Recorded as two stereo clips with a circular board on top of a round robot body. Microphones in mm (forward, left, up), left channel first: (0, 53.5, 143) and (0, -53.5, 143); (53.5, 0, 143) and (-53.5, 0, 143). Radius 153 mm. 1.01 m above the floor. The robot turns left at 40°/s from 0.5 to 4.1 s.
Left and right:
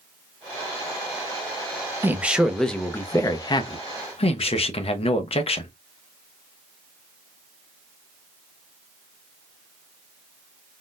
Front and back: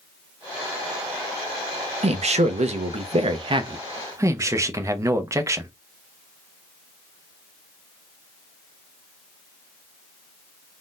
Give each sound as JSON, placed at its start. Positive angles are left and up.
{"t": 2.0, "sound": "a man speaking", "azimuth_deg": -160, "distance_m": 0.7}